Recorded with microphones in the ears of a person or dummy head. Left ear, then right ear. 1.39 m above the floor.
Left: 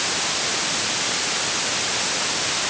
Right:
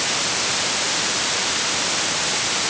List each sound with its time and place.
Only background noise.